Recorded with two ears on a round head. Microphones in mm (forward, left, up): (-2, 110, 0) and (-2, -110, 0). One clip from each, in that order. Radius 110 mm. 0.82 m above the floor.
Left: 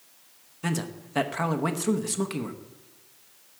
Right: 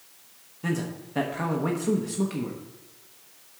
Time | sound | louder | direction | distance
0.6 | a man speaking | right 1 dB | 40° left (ahead or behind) | 0.8 m